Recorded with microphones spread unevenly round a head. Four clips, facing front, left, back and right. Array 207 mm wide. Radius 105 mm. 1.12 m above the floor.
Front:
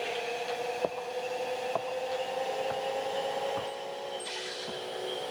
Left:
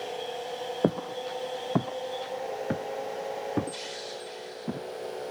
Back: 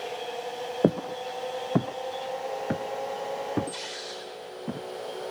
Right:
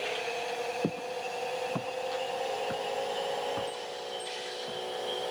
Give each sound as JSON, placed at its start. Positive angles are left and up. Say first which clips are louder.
{"t": 0.8, "sound": "footsteps", "louder": "left 5 dB, back 7 dB", "azimuth_deg": 160}